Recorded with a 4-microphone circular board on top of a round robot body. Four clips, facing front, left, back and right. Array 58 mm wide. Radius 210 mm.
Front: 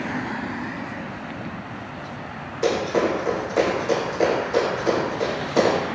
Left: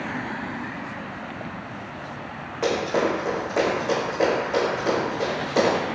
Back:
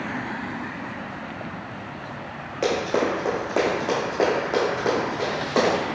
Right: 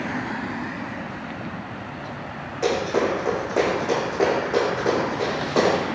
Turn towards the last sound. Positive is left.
turn(degrees=-160)